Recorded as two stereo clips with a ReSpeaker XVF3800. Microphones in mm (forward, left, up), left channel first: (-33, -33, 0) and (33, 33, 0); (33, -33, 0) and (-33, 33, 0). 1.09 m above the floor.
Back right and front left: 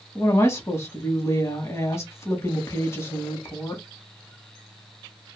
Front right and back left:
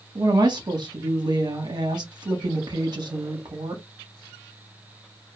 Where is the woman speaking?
170° left, 1.4 m.